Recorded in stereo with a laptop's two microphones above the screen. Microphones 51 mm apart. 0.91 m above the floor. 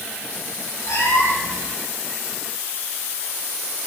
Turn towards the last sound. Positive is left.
turn(degrees=80)